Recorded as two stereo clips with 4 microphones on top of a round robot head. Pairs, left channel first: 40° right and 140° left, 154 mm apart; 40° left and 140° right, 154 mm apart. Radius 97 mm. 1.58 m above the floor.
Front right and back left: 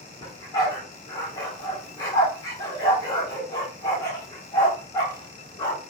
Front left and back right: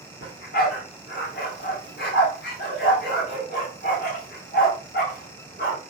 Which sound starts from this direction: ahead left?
A dog barking, at 0.2 s.